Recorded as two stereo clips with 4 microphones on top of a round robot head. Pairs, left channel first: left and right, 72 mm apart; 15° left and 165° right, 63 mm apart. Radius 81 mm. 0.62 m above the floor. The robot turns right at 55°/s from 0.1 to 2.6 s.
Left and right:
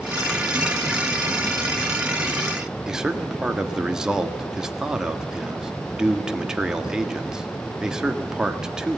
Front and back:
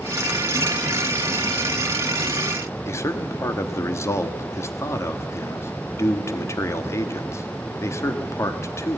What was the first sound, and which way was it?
A man speaking, 15° right.